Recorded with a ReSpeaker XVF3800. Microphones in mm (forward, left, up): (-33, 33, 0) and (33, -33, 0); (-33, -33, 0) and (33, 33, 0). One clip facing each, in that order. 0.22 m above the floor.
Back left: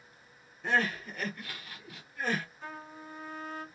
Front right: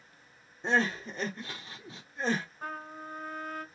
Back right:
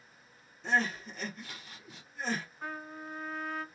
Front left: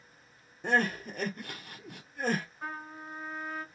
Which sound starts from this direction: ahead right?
A trumpet, at 2.6 s.